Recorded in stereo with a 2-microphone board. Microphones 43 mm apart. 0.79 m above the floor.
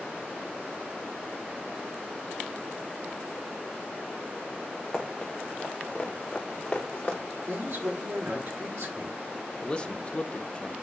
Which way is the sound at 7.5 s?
80° right.